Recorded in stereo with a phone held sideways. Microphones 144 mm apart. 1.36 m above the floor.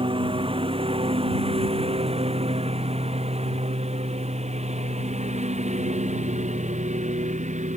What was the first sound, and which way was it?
A lawn mower, 35° right (ahead or behind).